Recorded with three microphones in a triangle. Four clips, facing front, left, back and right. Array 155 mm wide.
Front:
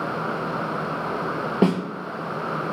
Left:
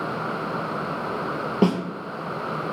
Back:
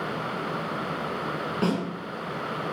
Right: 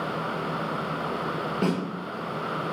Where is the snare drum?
35° left, 5 m.